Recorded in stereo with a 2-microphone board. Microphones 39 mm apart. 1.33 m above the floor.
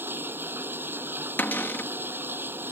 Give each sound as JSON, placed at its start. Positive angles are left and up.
{"t": 0.0, "sound": "running water", "side_deg": -85}
{"t": 1.4, "sound": "a cupboard door", "side_deg": 65}